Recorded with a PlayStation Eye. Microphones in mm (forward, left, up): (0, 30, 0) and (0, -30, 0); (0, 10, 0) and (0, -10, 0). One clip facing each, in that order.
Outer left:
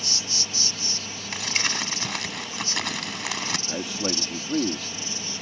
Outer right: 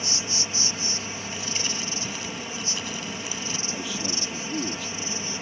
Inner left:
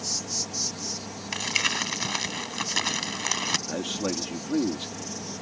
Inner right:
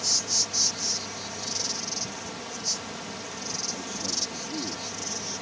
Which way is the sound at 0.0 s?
30° right (ahead or behind).